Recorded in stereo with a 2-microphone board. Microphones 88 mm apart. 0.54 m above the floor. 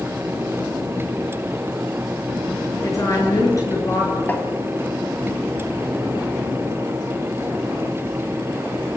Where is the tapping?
20° left (ahead or behind), 2.5 m.